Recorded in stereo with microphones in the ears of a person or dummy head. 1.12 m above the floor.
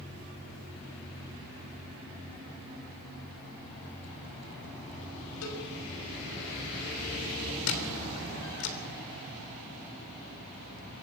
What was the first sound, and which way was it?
A cowbell, 80° left.